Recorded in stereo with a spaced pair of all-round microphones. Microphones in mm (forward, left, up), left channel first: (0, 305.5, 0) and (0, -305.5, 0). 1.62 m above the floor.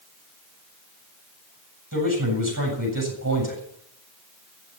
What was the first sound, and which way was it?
A man speaking, 30° right (ahead or behind).